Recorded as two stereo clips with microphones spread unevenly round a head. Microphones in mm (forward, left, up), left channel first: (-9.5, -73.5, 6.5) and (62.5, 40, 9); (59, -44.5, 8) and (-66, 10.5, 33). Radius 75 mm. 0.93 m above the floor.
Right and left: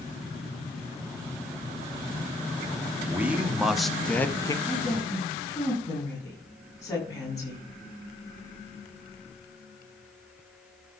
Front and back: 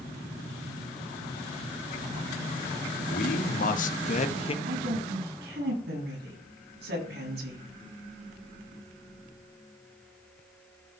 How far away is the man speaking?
About 2 m.